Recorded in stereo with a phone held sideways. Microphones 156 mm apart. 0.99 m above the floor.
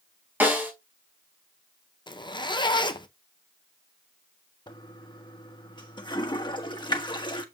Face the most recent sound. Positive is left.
turn(degrees=30)  # may be behind; listen again after turning